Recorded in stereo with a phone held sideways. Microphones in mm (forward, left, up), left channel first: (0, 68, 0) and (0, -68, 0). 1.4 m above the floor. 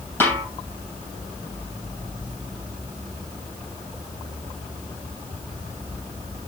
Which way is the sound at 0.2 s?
15° left (ahead or behind).